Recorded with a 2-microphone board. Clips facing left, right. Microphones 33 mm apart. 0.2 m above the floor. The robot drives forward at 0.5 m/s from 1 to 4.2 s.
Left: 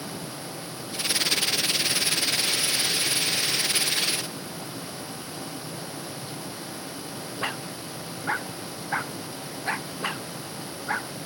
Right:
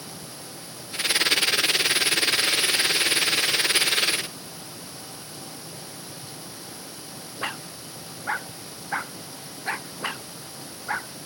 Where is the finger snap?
No finger snap in this recording.